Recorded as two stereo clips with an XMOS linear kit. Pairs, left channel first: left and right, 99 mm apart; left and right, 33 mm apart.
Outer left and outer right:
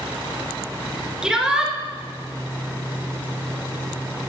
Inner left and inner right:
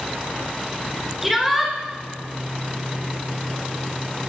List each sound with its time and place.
1.2 s a shout: 5° right (ahead or behind), 1.7 m